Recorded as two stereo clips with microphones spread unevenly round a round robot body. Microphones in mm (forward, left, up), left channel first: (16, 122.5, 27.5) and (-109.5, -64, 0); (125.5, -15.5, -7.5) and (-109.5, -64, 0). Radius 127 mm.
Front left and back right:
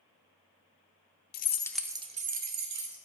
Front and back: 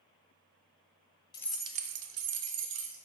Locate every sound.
1.3 s keys jangling: 70° left, 0.5 m; by 3.0 s 155° right, 1.3 m